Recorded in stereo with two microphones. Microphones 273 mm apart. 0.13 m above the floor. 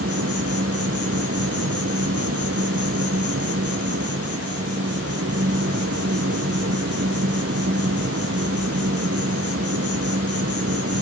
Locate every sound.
0.0 s an insect: 60° right (ahead or behind), 1.4 m